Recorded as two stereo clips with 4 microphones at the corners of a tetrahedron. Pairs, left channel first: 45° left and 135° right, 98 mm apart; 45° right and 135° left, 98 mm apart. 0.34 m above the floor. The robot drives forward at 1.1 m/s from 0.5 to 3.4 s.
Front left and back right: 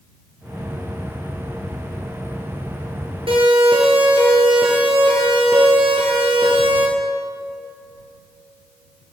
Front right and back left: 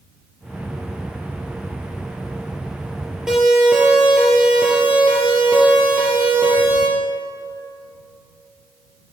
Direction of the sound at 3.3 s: 140° right.